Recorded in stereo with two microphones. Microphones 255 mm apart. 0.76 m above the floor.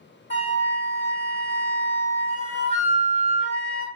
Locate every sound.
0.3 s a flute: 45° right (ahead or behind), 1.0 m